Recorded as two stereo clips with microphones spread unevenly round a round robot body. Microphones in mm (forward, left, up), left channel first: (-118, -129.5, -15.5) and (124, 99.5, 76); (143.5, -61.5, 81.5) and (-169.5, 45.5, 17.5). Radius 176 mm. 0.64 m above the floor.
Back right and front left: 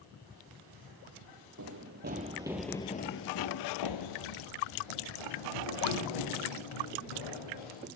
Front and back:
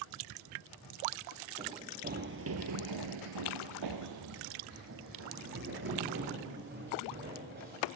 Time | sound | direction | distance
1.6 | running footsteps | 80° left | 1.4 m